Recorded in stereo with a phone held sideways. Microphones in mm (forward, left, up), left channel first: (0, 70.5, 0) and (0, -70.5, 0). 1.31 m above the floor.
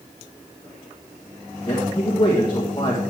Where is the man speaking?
35° left (ahead or behind), 1.6 m.